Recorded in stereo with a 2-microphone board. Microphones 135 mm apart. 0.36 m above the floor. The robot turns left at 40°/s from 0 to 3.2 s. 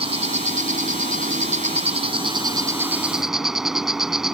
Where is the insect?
50° right; by 4.3 s 175° right.